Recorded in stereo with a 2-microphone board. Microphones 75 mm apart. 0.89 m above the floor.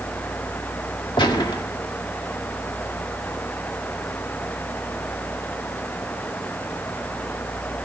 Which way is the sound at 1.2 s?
75° left (ahead or behind).